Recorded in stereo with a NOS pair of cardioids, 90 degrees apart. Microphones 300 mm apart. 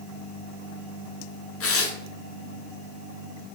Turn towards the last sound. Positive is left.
turn(degrees=50)